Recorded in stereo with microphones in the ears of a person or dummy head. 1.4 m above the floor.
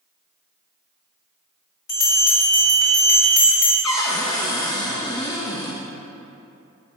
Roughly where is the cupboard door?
Left.